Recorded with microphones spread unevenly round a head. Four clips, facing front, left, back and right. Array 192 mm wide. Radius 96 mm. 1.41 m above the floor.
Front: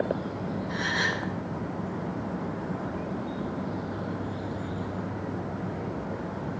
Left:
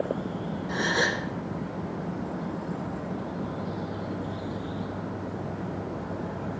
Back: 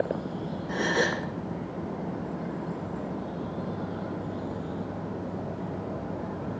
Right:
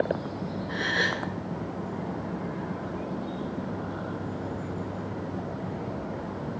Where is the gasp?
155° left, 0.7 m.